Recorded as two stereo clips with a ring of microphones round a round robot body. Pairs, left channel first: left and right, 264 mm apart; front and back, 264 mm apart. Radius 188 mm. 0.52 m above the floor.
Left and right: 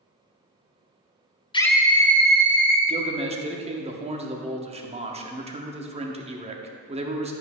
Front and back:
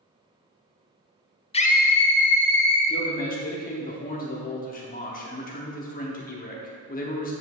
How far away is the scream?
About 0.8 m.